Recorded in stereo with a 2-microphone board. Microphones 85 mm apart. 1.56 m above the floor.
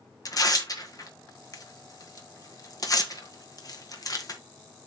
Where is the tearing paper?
45° left (ahead or behind), 1.5 m.